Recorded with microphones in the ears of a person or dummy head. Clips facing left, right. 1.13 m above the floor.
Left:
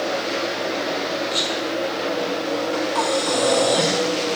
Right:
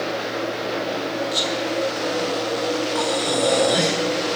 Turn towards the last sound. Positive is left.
turn(degrees=-5)  # may be behind; listen again after turning